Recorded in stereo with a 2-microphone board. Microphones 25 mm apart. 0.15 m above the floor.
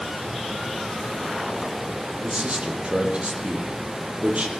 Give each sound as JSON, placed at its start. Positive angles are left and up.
{"t": 2.2, "sound": "a man speaking", "side_deg": -60, "distance_m": 5.5}